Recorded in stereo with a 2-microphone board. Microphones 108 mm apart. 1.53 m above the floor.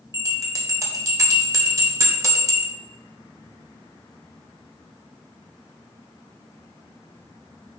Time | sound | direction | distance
0.1 | a bell | 30° right (ahead or behind) | 1.3 m